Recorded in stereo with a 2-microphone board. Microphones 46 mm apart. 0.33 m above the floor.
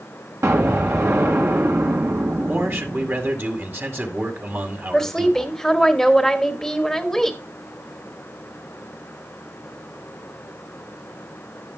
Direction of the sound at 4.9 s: 5° left (ahead or behind).